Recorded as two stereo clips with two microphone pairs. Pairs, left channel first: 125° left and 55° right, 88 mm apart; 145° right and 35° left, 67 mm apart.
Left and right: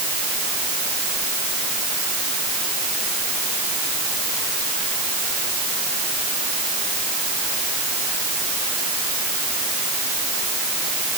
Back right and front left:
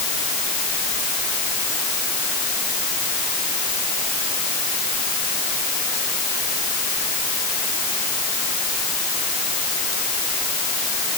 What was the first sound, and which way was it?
Only background noise.